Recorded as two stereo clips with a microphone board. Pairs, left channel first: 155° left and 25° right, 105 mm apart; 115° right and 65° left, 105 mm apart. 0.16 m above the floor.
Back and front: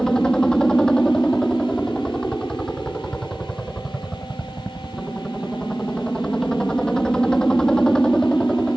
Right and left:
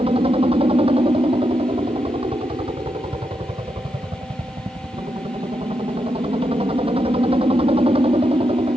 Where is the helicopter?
75° left.